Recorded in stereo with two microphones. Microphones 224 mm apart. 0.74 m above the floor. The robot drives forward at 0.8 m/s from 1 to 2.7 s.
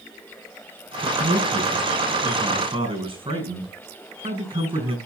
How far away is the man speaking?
About 5 m.